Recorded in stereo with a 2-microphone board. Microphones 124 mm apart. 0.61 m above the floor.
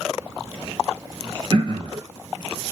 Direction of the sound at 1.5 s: 40° right (ahead or behind).